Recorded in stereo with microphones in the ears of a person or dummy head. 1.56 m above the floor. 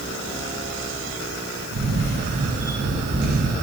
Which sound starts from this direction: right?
A camera shutter, at 1.7 s.